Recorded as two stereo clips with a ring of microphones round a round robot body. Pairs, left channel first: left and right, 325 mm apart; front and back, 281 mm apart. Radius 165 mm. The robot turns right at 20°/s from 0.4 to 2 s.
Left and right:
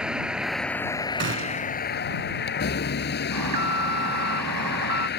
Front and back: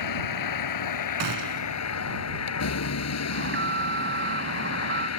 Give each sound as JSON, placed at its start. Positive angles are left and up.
{"t": 0.0, "sound": "a vehicle", "azimuth_deg": 0}
{"t": 1.2, "sound": "a gunshot", "azimuth_deg": -150}
{"t": 3.3, "sound": "an alarm", "azimuth_deg": -125}